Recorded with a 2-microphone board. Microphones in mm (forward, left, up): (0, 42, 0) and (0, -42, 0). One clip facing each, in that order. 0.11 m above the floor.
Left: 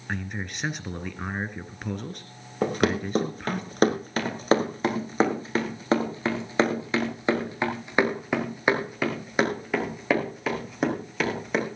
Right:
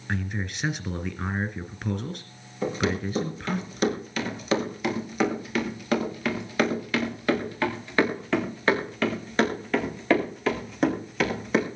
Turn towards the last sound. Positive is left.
turn(degrees=0)  # may be behind; listen again after turning